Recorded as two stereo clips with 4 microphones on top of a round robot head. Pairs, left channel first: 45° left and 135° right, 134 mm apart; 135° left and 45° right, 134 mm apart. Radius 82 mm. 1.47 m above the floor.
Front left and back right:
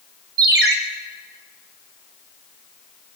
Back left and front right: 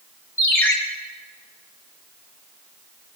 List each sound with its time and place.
0.4 s a ringtone: 150° right, 1.7 m